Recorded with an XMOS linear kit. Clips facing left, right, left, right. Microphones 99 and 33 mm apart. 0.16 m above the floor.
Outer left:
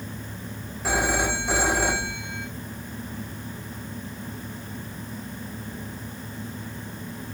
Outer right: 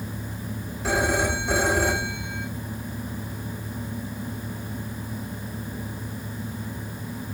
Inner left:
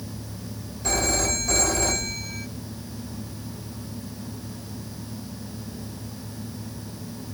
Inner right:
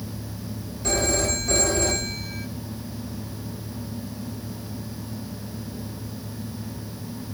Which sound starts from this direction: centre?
A phone ringing, at 0.8 s.